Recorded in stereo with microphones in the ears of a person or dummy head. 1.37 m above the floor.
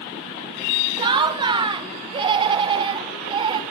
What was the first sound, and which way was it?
Laughter, 25° right (ahead or behind).